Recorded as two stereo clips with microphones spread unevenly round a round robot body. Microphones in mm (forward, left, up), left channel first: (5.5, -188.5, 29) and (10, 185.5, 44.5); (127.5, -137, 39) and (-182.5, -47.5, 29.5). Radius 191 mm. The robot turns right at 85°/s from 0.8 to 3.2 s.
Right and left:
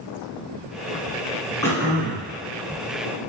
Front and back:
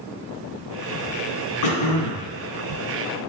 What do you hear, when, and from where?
1.6 s throat clearing: 10° right, 1.1 m; by 2.3 s 50° left, 1.1 m